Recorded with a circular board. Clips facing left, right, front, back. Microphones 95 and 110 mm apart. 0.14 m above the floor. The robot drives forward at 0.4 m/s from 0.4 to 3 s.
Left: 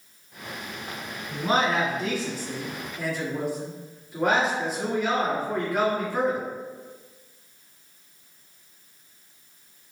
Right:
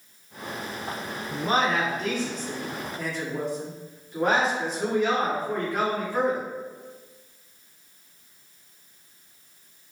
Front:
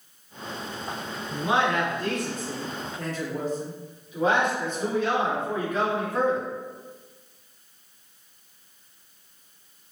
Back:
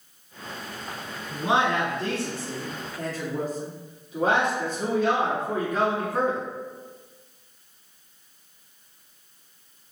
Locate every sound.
1.3 s a man speaking: 165° left, 1.4 m; by 6.5 s 175° left, 1.7 m